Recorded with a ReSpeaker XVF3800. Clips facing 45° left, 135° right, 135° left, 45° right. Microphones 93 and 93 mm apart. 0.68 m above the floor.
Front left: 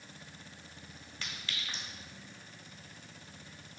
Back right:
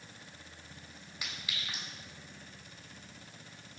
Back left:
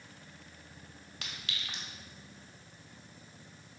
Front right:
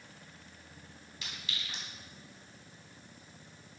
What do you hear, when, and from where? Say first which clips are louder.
1.2 s a clink: even, back left 1 dB; 150° left, 1.6 m